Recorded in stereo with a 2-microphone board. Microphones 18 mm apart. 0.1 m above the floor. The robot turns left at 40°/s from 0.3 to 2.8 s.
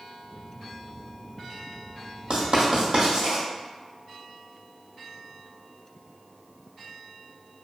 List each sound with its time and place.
2.3 s writing: 70° right (ahead or behind), 1.0 m; by 3.4 s 55° right (ahead or behind), 1.0 m